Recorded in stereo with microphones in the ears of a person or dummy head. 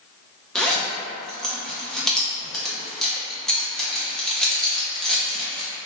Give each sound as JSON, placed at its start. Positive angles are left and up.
{"t": 0.6, "sound": "a zipper", "side_deg": 0, "distance_m": 0.5}